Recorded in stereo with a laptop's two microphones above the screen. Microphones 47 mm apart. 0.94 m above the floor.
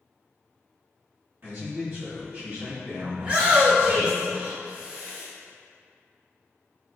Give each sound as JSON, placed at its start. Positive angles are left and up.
{"t": 1.4, "sound": "a man speaking", "side_deg": -55, "distance_m": 1.7}
{"t": 3.2, "sound": "a shout", "side_deg": -35, "distance_m": 0.8}